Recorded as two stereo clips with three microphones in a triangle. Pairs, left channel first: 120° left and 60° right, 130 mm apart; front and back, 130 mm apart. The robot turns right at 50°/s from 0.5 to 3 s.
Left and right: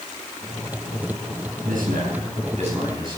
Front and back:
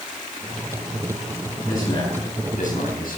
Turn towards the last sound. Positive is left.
turn(degrees=0)